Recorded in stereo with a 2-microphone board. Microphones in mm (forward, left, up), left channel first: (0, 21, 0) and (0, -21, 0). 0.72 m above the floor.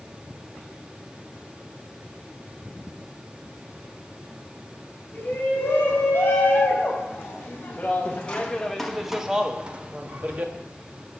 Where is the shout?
50° left (ahead or behind), 2.5 m; by 10.5 s 40° right (ahead or behind), 1.3 m.